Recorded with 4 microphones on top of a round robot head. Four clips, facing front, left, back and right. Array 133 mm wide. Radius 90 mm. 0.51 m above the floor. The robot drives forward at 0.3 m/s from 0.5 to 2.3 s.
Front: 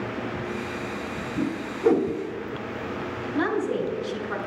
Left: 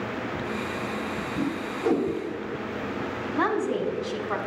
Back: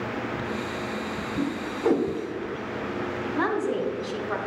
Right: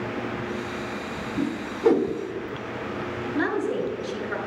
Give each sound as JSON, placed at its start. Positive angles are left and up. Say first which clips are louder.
{"t": 1.4, "sound": "a whoosh", "louder": "right 3 dB, front 1 dB", "azimuth_deg": -90, "distance_m": 1.3}
{"t": 3.3, "sound": "a woman speaking", "louder": "even, front 1 dB", "azimuth_deg": 130, "distance_m": 2.5}